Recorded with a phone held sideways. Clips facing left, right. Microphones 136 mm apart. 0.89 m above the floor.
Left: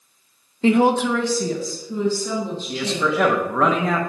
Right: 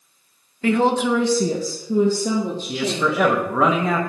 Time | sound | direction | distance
0.6 | a woman speaking | 25° left (ahead or behind) | 0.5 m
2.7 | a man speaking | 5° right (ahead or behind) | 0.7 m